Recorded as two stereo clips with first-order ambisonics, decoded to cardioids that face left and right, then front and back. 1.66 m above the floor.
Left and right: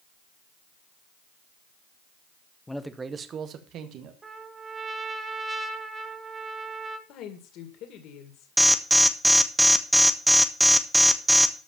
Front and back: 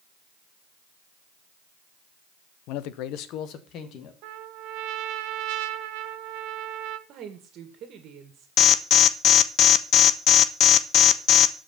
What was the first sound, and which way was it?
A man speaking, 10° left.